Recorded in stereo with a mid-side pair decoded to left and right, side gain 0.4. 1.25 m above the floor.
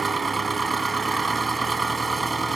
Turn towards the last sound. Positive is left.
turn(degrees=-25)